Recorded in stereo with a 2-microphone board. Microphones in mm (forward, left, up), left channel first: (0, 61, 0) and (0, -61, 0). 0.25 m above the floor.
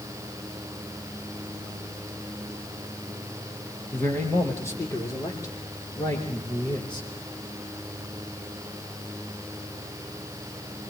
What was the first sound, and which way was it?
A man speaking, 20° left (ahead or behind).